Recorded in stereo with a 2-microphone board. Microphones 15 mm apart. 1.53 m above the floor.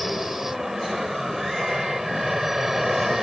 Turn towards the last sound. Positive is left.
turn(degrees=-25)  # may be behind; listen again after turning